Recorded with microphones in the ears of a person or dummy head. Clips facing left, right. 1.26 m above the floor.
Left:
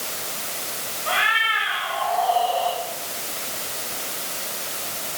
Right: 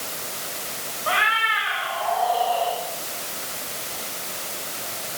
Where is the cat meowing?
50° right (ahead or behind), 3 m; by 2.8 s 45° right (ahead or behind), 5 m.